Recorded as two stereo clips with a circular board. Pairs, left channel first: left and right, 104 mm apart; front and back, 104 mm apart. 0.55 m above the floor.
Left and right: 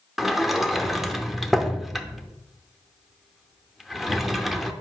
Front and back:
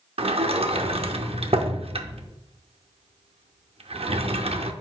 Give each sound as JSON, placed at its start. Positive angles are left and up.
{"t": 0.2, "sound": "a sliding door", "azimuth_deg": 180, "distance_m": 0.5}